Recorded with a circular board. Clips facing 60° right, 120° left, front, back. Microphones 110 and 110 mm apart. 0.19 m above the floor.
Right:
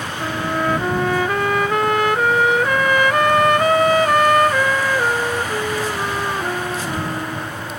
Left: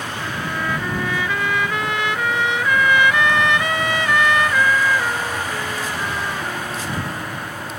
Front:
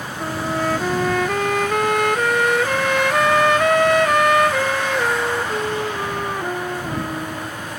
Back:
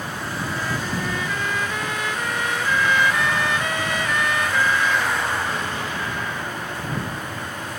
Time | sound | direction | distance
0.2 | a trumpet | 20° right | ?